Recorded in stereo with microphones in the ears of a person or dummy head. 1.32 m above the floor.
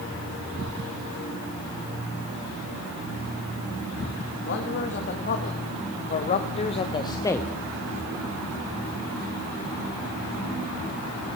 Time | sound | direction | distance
4.5 | a man speaking | 50° left (ahead or behind) | 2 m